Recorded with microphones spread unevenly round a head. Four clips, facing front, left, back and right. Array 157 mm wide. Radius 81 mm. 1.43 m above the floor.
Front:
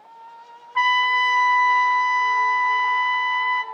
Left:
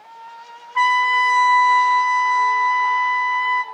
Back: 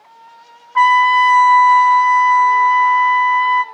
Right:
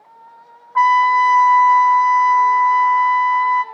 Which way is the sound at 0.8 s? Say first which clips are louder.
Right 5 dB, back 9 dB; 135° right.